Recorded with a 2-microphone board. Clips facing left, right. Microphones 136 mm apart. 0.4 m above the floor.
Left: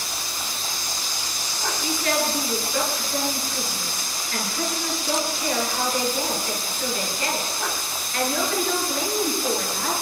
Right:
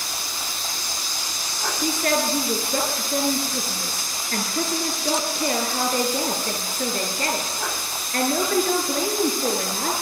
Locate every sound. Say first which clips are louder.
1.8 s a woman speaking: right 2 dB; 45° right (ahead or behind), 7 m